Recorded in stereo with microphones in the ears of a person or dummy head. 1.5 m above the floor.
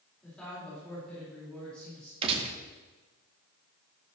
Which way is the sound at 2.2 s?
35° right (ahead or behind).